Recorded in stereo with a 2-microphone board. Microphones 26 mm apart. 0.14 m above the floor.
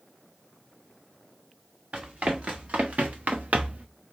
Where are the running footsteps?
55° right (ahead or behind), 1.6 m; by 3.9 s 60° right (ahead or behind), 0.7 m.